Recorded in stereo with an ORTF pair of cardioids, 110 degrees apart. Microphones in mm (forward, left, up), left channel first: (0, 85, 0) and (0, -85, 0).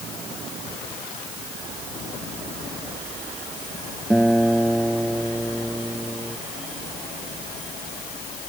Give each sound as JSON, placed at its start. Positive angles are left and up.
{"t": 4.1, "sound": "a guitar", "azimuth_deg": -5}